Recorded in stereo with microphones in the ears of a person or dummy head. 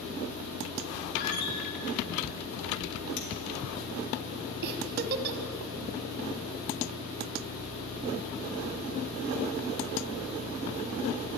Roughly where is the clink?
Left.